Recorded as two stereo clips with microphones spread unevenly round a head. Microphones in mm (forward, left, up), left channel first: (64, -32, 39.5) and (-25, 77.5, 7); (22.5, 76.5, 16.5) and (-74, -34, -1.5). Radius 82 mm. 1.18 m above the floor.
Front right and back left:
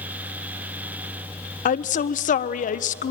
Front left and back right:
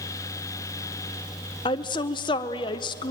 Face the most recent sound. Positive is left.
turn(degrees=-15)